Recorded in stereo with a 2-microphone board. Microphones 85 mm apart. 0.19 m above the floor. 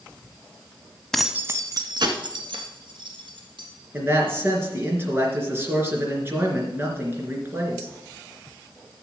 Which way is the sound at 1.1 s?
5° left (ahead or behind).